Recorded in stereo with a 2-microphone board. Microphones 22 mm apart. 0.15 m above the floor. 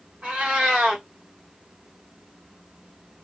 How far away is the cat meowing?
About 1.1 m.